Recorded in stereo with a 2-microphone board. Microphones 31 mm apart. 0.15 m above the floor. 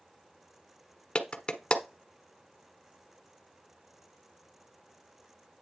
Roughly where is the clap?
Left.